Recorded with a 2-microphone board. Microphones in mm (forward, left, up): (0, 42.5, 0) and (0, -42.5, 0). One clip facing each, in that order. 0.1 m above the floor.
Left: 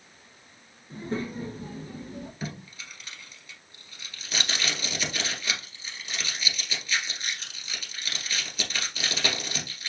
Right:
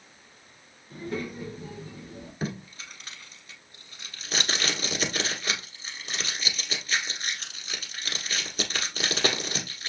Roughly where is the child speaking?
Left.